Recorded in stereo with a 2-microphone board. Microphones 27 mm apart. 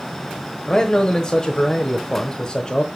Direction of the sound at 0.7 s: 30° left (ahead or behind).